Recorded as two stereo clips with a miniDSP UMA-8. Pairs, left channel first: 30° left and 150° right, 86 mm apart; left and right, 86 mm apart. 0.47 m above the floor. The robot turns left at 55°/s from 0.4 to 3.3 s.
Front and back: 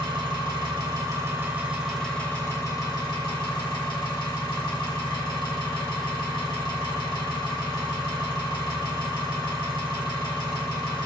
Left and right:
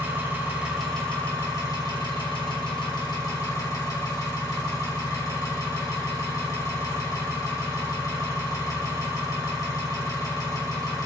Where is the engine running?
155° right, 0.9 m; by 11.1 s 45° left, 0.9 m.